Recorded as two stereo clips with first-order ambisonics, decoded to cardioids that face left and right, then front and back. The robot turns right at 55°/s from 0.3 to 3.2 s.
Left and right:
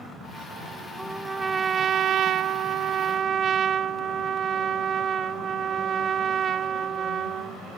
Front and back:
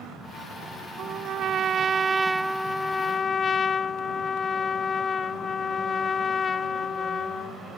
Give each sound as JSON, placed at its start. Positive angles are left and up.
{"t": 1.0, "sound": "a trumpet", "azimuth_deg": -175}